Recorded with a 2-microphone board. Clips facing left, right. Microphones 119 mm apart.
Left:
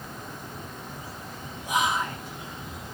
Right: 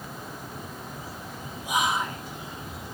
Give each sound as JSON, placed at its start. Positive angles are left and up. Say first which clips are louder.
{"t": 1.6, "sound": "whispering", "louder": "even", "side_deg": -10, "distance_m": 0.5}